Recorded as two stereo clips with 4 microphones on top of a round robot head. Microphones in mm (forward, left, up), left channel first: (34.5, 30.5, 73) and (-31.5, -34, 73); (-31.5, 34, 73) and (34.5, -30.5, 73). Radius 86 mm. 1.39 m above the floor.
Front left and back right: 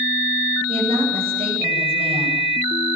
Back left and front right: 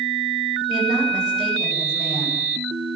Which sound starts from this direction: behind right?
A woman speaking, at 0.7 s.